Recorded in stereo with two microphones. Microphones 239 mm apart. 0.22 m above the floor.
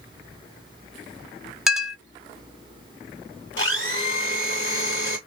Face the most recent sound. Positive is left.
turn(degrees=50)  # may be behind; listen again after turning